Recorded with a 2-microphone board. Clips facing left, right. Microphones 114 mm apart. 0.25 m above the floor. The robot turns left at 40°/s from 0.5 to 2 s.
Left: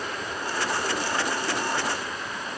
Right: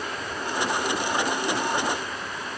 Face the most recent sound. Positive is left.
No sound to turn to.